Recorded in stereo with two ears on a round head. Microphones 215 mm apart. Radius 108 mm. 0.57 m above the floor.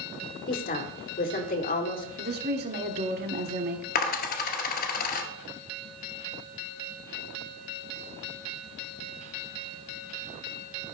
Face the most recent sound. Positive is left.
turn(degrees=40)  # may be behind; listen again after turning